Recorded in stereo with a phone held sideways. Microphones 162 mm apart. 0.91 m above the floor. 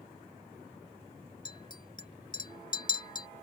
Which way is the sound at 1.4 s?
30° left (ahead or behind).